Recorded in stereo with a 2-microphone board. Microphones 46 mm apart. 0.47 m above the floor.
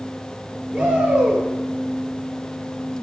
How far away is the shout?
About 8.5 m.